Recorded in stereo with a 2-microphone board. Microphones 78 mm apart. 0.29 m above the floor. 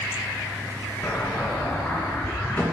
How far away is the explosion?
About 3 m.